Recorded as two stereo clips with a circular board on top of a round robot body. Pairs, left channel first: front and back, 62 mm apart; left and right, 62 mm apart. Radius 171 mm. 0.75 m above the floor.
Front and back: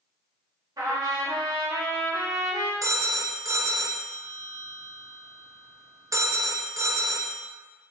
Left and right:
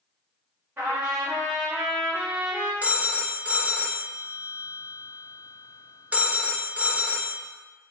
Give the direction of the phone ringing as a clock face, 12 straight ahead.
5 o'clock.